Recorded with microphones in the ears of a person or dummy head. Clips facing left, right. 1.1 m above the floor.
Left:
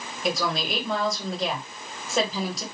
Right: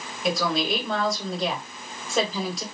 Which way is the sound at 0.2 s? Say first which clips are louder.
Right 2 dB; centre (ahead or behind).